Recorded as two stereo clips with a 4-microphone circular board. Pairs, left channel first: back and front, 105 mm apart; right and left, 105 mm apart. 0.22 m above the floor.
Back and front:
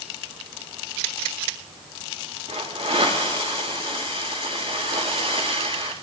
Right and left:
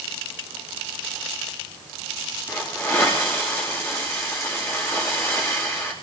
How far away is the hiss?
About 8 m.